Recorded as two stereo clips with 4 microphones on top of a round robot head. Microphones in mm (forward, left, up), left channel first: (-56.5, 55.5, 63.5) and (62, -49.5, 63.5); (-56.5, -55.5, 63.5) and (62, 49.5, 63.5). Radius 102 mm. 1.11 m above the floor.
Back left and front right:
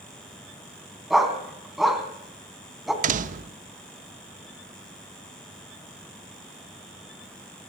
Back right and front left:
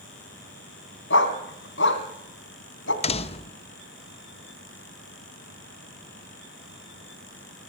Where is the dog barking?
130° right, 2 m.